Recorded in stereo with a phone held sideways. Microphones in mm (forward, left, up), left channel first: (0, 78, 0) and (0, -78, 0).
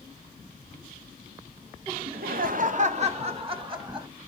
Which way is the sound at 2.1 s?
80° right.